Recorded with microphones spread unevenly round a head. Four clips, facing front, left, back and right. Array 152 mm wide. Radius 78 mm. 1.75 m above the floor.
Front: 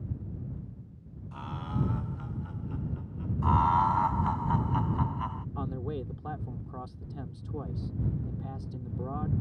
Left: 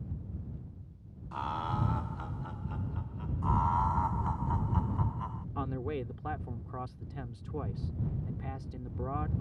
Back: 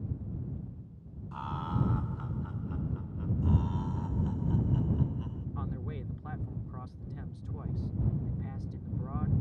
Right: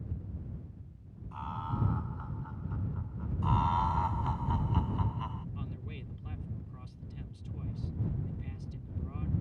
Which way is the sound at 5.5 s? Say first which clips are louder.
Left 10 dB, front 6 dB; 50° left.